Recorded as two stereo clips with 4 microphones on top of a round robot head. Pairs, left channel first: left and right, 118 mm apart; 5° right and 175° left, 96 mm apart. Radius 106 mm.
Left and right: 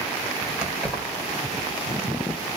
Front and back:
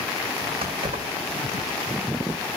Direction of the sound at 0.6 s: 170° right.